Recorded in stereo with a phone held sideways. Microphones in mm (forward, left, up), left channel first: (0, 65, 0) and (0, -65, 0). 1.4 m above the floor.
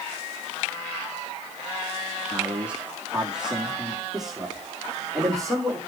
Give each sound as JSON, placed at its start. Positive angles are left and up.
{"t": 2.3, "sound": "a man speaking", "side_deg": -15, "distance_m": 1.8}